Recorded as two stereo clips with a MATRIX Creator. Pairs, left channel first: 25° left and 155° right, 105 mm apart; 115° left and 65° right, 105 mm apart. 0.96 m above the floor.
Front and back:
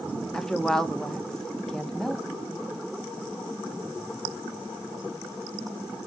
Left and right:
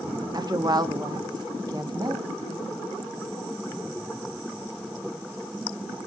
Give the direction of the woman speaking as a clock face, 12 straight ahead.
2 o'clock.